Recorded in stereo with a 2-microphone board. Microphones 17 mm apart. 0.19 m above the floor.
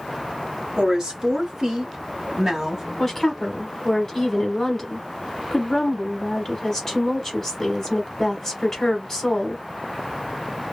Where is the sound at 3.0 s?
20° left (ahead or behind), 1.0 m.